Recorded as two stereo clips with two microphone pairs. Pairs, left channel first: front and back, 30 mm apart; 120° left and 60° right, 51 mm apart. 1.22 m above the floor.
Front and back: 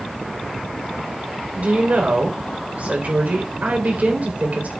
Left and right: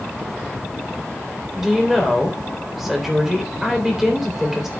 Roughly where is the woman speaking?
Behind right.